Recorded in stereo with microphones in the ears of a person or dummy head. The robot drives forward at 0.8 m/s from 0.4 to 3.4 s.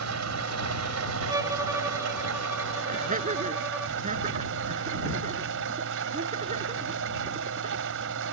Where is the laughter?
40° right (ahead or behind).